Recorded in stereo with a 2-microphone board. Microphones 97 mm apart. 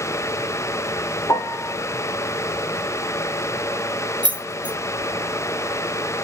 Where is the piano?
35° left (ahead or behind), 0.6 m.